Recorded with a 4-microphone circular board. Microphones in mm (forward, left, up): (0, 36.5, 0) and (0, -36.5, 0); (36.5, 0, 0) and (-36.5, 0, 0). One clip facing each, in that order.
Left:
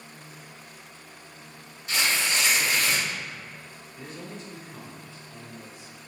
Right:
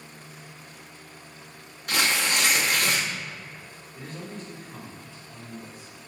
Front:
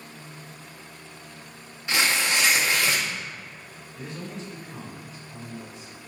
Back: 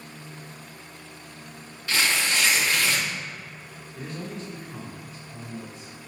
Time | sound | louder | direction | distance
1.9 | tearing paper | right 2 dB, front 1 dB | 70° right | 0.7 m
3.9 | a man speaking | right 2 dB, back 1 dB | 135° right | 1.8 m